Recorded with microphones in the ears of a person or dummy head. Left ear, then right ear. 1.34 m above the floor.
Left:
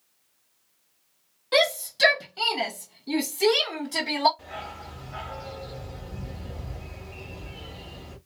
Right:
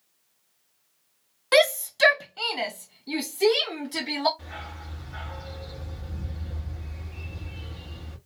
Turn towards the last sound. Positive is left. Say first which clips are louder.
# left 2 dB
turn(degrees=15)  # may be behind; listen again after turning